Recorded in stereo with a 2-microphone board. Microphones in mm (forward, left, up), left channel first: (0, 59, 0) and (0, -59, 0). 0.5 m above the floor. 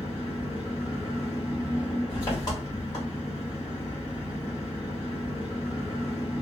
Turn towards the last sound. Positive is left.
turn(degrees=30)  # may be behind; listen again after turning